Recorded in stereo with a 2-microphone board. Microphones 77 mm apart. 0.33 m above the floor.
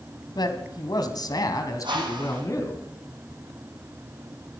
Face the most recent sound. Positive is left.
turn(degrees=-75)  # may be behind; listen again after turning